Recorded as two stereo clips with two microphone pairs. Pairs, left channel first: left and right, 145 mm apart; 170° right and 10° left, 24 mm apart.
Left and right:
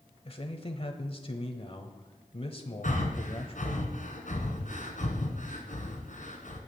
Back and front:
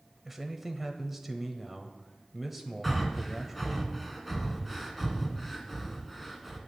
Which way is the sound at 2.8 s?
110° left.